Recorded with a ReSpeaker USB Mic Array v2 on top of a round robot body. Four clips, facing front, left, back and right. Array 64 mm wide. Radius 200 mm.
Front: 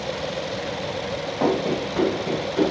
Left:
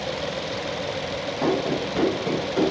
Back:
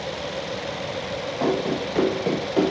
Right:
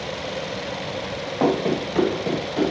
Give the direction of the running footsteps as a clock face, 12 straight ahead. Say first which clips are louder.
Right 3 dB, front 2 dB; 3 o'clock.